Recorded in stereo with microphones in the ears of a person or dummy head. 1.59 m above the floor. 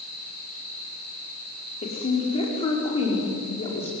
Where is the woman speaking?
25° left (ahead or behind), 5 m.